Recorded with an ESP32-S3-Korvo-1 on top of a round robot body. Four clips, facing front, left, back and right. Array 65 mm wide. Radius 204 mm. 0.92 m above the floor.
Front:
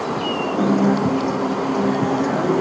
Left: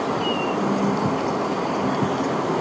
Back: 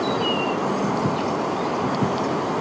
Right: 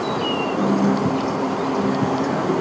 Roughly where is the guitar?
Ahead.